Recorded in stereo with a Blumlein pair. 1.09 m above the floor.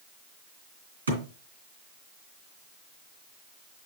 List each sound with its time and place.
1.1 s a thud: 70° right, 2.5 m